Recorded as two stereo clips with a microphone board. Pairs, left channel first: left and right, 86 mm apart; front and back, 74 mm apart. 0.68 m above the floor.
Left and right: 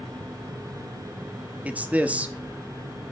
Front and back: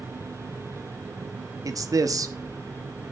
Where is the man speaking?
160° right, 0.9 m.